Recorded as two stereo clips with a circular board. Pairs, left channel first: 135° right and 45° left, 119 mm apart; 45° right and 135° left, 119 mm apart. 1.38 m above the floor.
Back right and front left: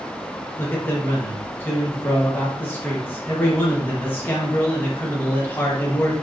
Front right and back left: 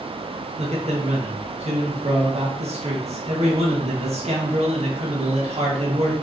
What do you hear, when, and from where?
0.6 s a man speaking: 155° left, 1.1 m